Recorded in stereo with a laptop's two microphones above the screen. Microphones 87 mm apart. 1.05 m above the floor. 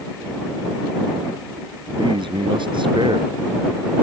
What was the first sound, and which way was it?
A man speaking, 70° right (ahead or behind).